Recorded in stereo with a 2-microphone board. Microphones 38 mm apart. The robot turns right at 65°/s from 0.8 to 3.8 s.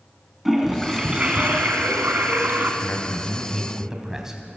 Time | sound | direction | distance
0.5 | a toilet flushing | 175° right | 3 m
2.8 | a man speaking | 130° left | 3 m